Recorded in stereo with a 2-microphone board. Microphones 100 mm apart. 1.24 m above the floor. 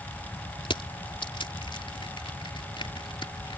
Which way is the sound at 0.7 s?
60° left (ahead or behind).